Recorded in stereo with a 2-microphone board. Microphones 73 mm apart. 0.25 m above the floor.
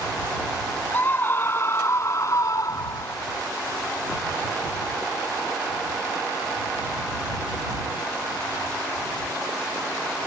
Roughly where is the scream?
Left.